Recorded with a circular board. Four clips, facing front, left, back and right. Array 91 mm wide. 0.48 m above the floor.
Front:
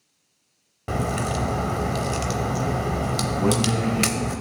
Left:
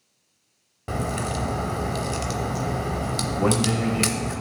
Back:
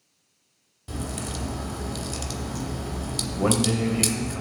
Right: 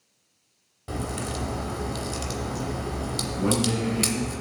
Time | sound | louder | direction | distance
0.9 | a crack | left 4 dB, front 8 dB | 25° left | 0.5 m
3.4 | a man speaking | left 2 dB, back 1 dB | 130° left | 2.0 m